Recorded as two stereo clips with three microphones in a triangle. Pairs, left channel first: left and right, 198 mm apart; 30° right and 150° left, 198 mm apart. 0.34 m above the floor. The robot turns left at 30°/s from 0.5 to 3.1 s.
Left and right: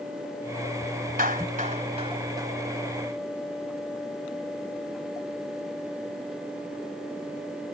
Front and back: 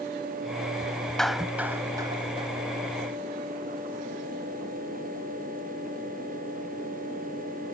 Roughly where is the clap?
Behind right.